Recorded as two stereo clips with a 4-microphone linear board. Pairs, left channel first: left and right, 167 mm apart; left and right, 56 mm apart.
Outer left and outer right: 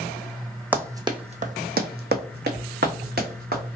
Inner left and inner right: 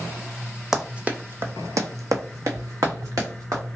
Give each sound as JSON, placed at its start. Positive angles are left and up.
{"t": 0.7, "sound": "running footsteps", "side_deg": -10, "distance_m": 0.7}